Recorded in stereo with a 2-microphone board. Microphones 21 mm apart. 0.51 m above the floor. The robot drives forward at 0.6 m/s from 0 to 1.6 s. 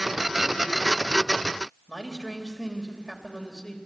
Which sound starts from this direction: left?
A man speaking, at 1.9 s.